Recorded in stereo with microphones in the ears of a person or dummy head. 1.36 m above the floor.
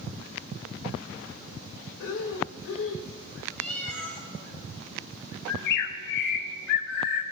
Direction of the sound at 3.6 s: 5° left (ahead or behind).